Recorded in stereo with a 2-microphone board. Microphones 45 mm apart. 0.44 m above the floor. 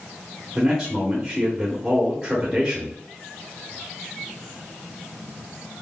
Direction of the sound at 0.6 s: 15° right (ahead or behind).